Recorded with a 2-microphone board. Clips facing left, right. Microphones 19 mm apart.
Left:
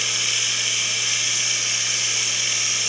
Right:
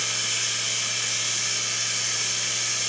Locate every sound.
0.0 s running water: 70° left (ahead or behind), 3 m